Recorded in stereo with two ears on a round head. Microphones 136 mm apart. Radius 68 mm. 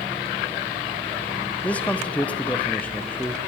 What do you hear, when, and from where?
1.6 s a man speaking: 10° left (ahead or behind), 0.9 m